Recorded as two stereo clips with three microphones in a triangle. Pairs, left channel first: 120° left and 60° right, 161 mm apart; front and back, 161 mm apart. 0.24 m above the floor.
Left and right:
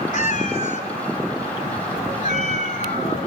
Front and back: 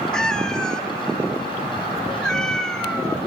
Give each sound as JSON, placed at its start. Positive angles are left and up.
{"t": 0.1, "sound": "a cat meowing", "azimuth_deg": 85, "distance_m": 1.1}